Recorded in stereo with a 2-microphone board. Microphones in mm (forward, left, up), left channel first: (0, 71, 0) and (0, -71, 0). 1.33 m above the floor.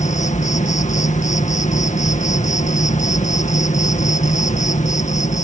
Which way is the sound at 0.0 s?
55° left (ahead or behind).